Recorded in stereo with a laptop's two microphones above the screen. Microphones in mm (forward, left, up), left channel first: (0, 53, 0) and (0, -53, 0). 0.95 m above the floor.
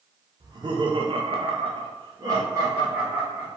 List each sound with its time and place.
0.4 s laughter: 40° right (ahead or behind), 0.9 m; by 3.5 s 10° right (ahead or behind), 1.1 m